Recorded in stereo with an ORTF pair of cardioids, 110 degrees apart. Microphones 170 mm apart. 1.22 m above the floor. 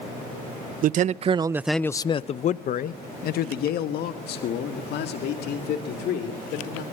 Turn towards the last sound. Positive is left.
turn(degrees=80)